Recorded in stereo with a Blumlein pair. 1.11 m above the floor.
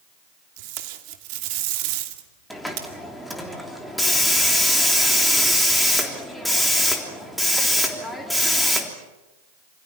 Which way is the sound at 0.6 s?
45° right.